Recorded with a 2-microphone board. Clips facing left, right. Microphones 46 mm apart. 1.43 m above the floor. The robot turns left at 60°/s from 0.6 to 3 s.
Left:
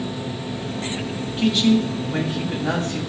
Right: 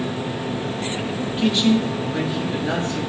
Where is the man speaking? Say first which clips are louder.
Left 1 dB; 175° right, 3 m; by 3.0 s 85° left, 3 m.